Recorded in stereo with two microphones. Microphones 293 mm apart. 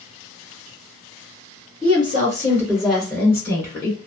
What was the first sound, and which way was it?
A woman speaking, 20° right (ahead or behind).